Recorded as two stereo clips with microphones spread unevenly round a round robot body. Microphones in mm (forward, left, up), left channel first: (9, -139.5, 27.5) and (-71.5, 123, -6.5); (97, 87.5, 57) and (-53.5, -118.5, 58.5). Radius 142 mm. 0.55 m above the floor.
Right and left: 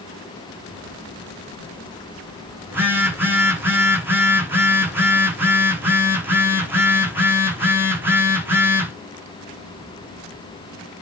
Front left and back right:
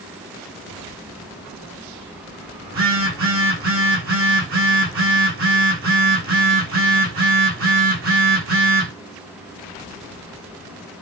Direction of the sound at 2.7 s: 170° right.